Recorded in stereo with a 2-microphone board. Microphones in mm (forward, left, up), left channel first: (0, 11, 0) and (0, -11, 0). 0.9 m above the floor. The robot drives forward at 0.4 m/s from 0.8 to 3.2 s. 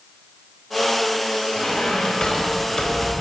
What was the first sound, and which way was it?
A squeak, 35° left (ahead or behind).